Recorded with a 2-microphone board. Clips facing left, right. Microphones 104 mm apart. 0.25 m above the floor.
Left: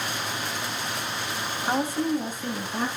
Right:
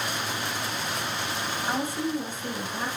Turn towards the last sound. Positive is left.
turn(degrees=50)  # may be behind; listen again after turning